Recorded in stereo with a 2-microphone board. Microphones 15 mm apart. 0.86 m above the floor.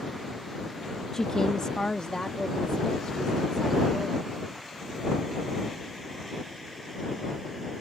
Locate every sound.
1.1 s a woman speaking: 30° left (ahead or behind); by 4.3 s 45° left (ahead or behind)